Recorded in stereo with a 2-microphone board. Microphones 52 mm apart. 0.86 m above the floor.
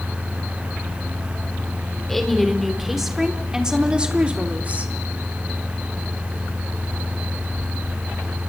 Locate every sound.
2.1 s a woman speaking: 5° left (ahead or behind), 3 m; by 4.9 s 30° right (ahead or behind), 2.5 m